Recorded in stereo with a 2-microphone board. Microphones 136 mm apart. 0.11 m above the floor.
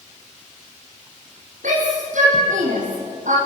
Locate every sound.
1.6 s a shout: 70° right (ahead or behind), 5 m; by 3.4 s 75° right (ahead or behind), 6 m